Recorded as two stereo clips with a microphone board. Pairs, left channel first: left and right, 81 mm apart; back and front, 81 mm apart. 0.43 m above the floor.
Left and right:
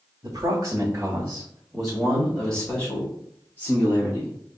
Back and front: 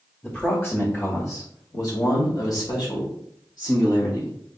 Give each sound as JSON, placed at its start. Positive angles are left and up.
{"t": 0.2, "sound": "a man speaking", "azimuth_deg": -115, "distance_m": 1.2}